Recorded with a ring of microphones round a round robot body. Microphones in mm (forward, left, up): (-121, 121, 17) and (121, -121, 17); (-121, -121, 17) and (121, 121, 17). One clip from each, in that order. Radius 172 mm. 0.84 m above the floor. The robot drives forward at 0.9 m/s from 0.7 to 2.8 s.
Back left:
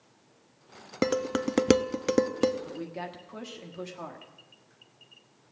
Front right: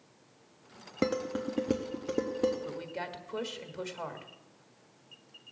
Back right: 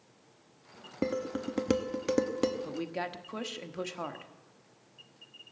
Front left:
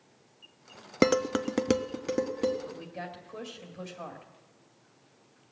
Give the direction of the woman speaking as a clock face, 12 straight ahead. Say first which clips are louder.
Even, back right 4 dB; 4 o'clock.